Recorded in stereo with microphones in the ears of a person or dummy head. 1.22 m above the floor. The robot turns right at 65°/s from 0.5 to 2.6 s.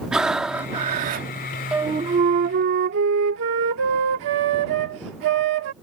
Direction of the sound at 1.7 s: 175° right.